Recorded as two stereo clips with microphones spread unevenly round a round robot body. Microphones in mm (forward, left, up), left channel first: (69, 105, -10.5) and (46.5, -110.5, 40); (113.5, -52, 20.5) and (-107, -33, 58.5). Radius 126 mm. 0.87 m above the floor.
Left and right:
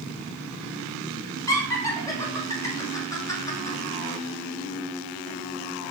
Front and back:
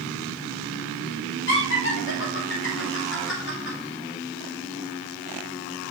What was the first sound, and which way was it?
Laughter, 15° left.